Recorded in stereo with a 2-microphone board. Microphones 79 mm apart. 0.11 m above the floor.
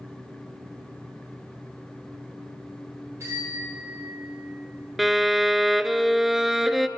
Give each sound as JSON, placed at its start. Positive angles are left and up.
{"t": 3.2, "sound": "a bicycle bell", "side_deg": -40, "distance_m": 7.0}
{"t": 5.0, "sound": "a violin", "side_deg": -5, "distance_m": 0.5}